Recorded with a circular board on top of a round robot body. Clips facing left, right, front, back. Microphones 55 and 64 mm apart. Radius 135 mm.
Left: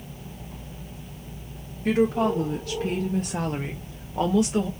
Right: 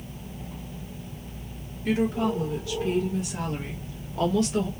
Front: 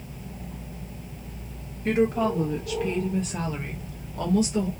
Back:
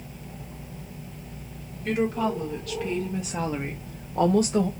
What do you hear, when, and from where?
1.9 s a woman speaking: 60° left, 1.2 m; by 4.7 s 170° left, 1.0 m